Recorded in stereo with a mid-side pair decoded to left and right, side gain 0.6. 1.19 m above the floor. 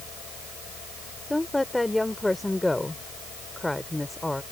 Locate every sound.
0.0 s a fan: 50° left
1.3 s a woman speaking: 10° left